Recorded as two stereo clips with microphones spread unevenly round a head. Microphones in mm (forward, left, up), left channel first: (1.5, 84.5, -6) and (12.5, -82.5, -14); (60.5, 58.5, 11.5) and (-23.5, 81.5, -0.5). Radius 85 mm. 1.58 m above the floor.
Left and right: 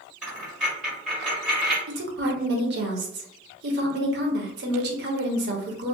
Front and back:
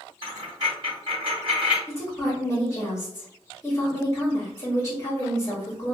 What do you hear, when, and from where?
0.2 s a dropped coin: 170° right, 1.6 m
1.9 s a woman speaking: 75° right, 0.6 m